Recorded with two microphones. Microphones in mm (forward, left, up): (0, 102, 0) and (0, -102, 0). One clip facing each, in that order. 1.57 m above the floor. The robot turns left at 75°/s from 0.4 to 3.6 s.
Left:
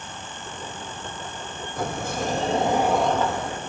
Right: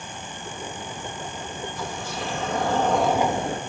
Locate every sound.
1.8 s a sliding door: 95° left, 1.2 m; by 3.6 s 45° right, 1.2 m